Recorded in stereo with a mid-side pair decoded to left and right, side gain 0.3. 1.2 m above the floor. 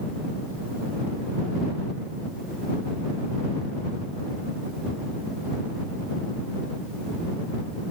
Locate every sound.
Only background noise.